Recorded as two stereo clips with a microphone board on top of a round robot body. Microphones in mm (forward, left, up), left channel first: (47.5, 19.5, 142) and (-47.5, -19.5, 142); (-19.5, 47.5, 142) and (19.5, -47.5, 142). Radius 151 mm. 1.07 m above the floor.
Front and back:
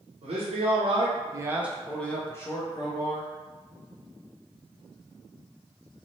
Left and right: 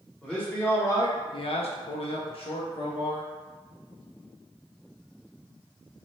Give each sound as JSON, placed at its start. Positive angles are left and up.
{"t": 0.2, "sound": "a man speaking", "azimuth_deg": -165, "distance_m": 1.0}